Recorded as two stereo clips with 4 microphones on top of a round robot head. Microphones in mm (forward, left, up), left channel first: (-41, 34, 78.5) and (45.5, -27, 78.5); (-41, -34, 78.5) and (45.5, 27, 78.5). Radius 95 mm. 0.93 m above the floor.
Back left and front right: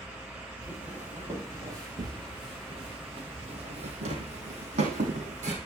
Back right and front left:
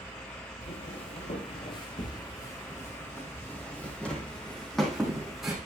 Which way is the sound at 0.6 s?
115° right.